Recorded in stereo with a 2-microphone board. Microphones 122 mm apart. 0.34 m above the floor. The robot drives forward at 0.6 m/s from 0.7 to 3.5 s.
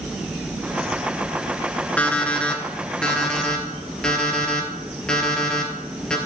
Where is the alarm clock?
10° left (ahead or behind), 1.6 m; by 6.2 s 5° left (ahead or behind), 2.5 m.